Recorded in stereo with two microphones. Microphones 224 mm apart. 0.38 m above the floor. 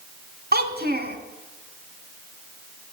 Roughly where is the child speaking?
Right.